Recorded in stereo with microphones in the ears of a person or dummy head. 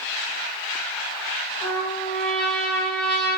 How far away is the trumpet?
About 3 m.